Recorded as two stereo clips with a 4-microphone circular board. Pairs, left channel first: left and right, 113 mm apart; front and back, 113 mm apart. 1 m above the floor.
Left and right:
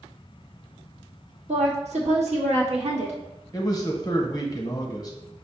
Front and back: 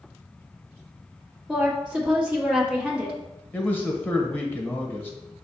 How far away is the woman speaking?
About 1.1 m.